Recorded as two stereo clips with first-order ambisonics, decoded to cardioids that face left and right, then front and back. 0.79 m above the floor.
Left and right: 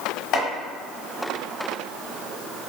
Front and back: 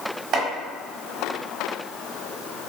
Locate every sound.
0.3 s chopping: 130° left, 1.0 m